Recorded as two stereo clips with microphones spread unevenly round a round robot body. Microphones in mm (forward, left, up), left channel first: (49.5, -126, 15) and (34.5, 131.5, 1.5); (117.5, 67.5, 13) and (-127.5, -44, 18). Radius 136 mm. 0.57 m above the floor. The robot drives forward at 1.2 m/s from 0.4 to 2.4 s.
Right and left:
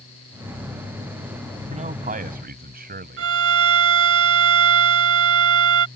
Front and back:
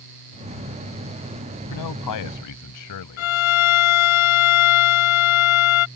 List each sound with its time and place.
1.7 s a man speaking: 30° left; by 3.3 s 40° left
3.2 s a violin: 55° left